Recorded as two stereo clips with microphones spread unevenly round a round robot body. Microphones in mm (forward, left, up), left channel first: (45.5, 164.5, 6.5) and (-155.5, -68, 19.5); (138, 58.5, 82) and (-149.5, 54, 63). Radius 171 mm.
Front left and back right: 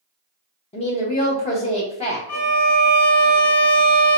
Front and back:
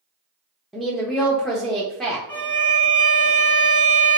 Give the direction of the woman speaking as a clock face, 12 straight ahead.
9 o'clock.